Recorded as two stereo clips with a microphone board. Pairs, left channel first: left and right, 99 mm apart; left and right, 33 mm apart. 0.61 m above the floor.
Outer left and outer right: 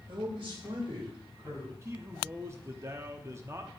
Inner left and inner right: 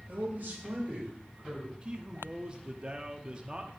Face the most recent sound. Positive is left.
turn(degrees=-25)  # may be behind; listen again after turning